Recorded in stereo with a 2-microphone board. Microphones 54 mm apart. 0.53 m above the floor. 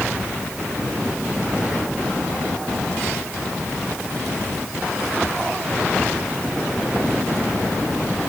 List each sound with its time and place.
Only background noise.